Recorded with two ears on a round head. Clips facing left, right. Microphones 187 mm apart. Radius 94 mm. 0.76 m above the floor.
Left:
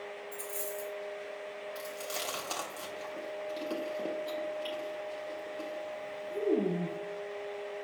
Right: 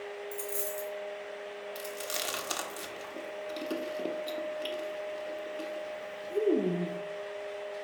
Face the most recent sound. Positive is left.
turn(degrees=-20)  # may be behind; listen again after turning